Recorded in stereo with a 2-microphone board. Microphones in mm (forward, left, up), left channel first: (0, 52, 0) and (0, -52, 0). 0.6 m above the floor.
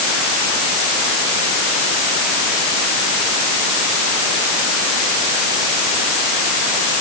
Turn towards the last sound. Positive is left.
No sound to turn to.